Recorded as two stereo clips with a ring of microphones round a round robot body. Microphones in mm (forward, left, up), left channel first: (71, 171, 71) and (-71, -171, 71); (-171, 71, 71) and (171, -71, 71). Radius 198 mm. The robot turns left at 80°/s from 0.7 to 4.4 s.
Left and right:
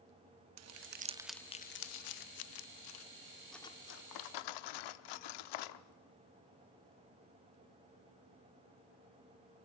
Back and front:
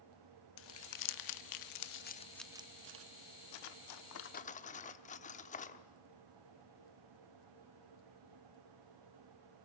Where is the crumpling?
155° right, 0.7 m; by 3.0 s 20° left, 0.7 m.